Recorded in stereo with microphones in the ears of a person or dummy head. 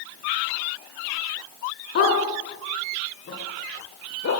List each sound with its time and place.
1.9 s a dog barking: 65° left (ahead or behind), 5.5 m; by 4.3 s 70° left (ahead or behind), 6.5 m